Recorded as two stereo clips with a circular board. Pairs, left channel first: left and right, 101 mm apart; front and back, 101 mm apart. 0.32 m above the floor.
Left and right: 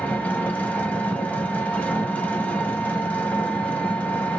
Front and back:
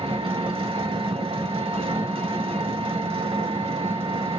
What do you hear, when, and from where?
0.0 s an engine running: 165° left, 0.7 m